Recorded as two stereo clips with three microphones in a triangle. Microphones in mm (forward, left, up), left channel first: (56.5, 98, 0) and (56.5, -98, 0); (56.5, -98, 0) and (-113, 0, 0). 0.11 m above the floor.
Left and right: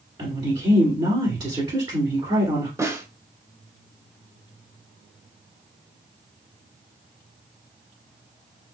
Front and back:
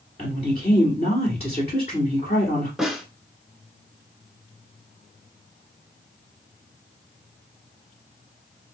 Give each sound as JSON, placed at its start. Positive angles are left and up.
{"t": 0.2, "sound": "a woman speaking", "azimuth_deg": -50, "distance_m": 1.8}
{"t": 2.8, "sound": "a snare drum", "azimuth_deg": -125, "distance_m": 0.8}